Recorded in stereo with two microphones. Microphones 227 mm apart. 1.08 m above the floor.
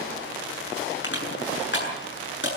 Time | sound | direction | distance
1.0 | crushing | 55° left (ahead or behind) | 8 m